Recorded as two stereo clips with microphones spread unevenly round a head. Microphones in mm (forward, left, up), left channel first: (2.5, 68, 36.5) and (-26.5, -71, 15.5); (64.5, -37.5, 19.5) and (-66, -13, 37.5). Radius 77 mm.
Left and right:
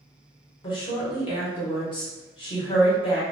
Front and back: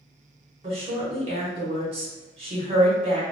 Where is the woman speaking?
130° left, 1.0 m.